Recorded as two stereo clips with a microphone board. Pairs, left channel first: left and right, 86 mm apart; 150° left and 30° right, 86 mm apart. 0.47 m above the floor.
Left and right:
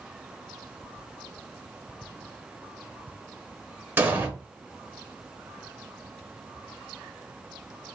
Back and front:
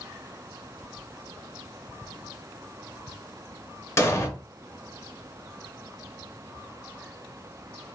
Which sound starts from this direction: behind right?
An explosion, at 4.0 s.